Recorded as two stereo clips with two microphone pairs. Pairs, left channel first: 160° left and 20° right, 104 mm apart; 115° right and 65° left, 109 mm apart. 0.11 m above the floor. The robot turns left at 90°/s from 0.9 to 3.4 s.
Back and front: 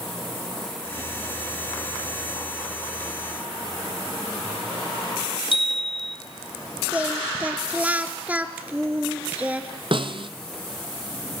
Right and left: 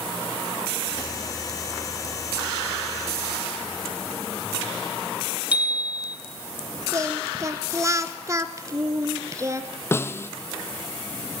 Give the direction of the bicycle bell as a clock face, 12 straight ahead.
7 o'clock.